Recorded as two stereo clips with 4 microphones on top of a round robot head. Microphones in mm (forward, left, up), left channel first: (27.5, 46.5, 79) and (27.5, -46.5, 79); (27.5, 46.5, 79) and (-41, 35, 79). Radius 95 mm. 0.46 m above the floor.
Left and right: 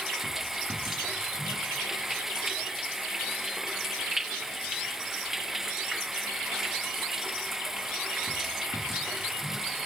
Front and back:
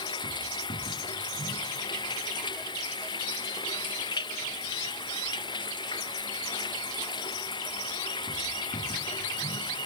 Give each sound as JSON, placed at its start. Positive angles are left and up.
{"t": 0.0, "sound": "running water", "azimuth_deg": -5}